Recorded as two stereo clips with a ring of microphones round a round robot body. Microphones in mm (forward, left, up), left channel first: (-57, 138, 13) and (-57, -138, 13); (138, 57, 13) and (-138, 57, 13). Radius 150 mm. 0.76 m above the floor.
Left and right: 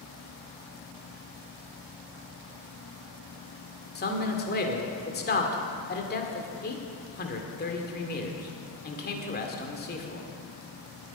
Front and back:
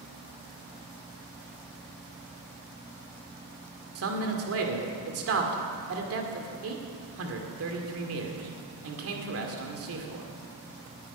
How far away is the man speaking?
About 2 m.